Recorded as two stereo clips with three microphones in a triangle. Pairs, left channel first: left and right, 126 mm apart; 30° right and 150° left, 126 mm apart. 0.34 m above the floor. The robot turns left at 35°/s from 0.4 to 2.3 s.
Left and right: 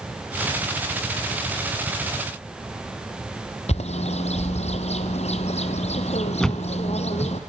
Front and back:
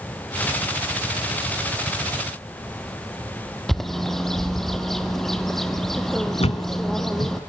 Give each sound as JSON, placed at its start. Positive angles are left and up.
{"t": 3.7, "sound": "a bird", "azimuth_deg": 60, "distance_m": 2.0}
{"t": 6.4, "sound": "a thud", "azimuth_deg": 5, "distance_m": 1.3}